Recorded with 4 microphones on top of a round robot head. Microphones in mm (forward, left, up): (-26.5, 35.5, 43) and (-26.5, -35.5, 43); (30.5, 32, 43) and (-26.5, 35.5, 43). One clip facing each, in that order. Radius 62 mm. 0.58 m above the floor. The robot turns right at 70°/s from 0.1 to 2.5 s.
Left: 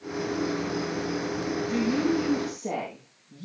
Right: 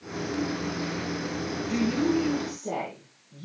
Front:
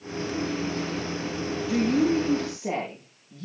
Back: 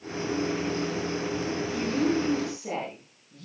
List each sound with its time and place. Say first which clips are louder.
1.7 s a woman speaking: right 1 dB, front 5 dB; 5° right, 9 m; by 3.5 s 55° left, 9 m